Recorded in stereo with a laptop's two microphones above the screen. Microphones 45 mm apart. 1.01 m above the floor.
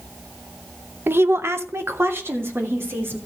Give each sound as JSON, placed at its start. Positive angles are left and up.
{"t": 1.1, "sound": "a woman speaking", "side_deg": -50, "distance_m": 0.7}